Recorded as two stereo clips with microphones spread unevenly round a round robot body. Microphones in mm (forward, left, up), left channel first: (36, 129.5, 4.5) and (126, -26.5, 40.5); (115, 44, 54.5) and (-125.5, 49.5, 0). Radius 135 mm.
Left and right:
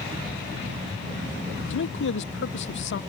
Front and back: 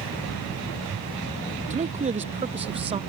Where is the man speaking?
115° left; by 3.0 s 110° left.